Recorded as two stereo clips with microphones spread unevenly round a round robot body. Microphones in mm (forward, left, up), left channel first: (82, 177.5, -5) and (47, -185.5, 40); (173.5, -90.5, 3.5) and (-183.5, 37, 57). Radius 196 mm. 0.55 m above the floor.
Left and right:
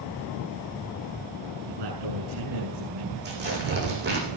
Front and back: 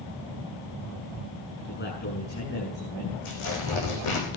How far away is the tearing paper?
About 9.5 m.